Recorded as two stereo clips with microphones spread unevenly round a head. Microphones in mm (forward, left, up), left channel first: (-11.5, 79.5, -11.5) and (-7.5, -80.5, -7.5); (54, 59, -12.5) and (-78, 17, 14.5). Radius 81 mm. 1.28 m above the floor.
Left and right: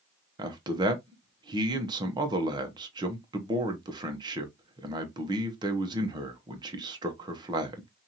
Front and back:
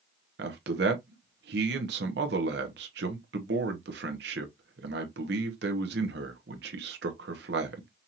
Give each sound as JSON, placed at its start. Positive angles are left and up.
{"t": 0.4, "sound": "a man speaking", "azimuth_deg": -155, "distance_m": 1.2}